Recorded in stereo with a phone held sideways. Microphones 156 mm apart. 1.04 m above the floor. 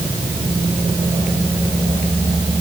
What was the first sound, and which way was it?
Only background noise.